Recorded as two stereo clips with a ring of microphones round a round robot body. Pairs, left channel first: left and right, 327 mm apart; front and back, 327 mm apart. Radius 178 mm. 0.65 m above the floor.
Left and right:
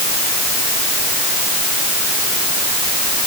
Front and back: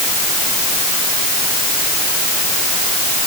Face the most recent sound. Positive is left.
No sound to turn to.